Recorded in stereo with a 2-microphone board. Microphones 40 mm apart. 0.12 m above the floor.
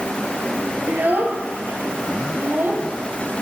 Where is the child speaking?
50° right (ahead or behind), 2 m; by 2.8 s 60° right (ahead or behind), 3 m.